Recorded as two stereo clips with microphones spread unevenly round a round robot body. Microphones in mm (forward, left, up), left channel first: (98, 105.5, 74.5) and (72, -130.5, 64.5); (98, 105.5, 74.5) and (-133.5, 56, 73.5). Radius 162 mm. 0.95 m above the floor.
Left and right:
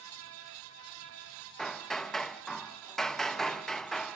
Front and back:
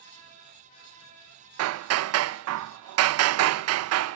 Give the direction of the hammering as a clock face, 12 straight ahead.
6 o'clock.